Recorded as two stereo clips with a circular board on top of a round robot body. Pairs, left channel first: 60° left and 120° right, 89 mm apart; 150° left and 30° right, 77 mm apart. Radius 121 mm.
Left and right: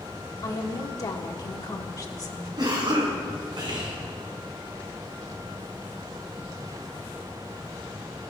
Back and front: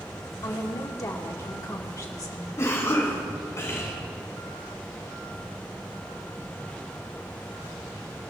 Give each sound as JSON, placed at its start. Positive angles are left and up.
{"t": 0.4, "sound": "a woman speaking", "azimuth_deg": 110, "distance_m": 1.8}
{"t": 2.6, "sound": "a cough", "azimuth_deg": -155, "distance_m": 5.0}